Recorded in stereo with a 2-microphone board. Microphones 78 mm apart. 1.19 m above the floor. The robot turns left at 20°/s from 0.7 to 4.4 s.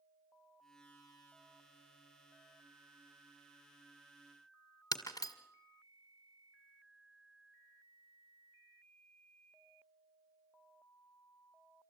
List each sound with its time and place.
4.9 s breaking glass: 50° left (ahead or behind), 1.7 m